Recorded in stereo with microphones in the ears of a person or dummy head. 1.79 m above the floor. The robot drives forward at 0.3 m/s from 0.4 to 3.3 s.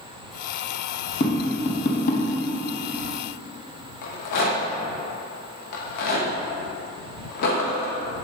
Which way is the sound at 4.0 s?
60° left (ahead or behind).